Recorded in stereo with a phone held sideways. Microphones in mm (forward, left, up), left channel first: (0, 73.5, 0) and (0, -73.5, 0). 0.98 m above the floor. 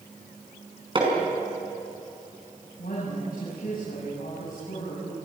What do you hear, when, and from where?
0.9 s hammering: 35° right (ahead or behind), 5.5 m
2.8 s a woman speaking: 80° left, 8 m